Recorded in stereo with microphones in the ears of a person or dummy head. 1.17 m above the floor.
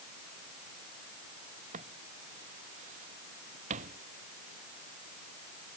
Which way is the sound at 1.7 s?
40° right (ahead or behind).